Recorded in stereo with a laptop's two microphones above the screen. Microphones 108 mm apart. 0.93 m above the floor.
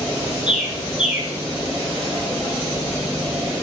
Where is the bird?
10° right (ahead or behind), 1.2 m.